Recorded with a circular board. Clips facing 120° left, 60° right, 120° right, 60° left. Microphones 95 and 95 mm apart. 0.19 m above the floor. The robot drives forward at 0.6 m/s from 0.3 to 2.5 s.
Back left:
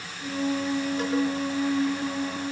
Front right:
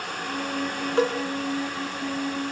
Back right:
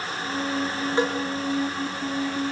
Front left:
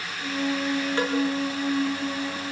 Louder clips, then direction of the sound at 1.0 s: Front right 7 dB, back right 3 dB; 45° right.